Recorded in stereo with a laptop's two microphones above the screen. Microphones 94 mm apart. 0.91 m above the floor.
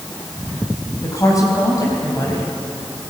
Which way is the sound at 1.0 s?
35° left (ahead or behind).